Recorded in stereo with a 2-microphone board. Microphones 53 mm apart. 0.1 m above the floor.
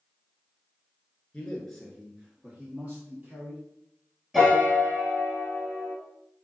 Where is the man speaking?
20° left (ahead or behind), 1.1 m; by 3.6 s 35° right (ahead or behind), 2 m.